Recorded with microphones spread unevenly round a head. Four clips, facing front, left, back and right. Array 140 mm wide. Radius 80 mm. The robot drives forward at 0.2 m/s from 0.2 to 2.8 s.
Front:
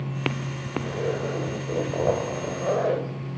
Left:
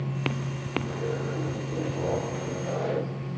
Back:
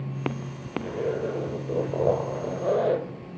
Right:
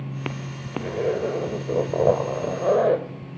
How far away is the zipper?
About 2.5 m.